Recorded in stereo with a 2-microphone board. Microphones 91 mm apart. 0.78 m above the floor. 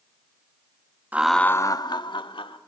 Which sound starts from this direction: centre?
Laughter, at 1.1 s.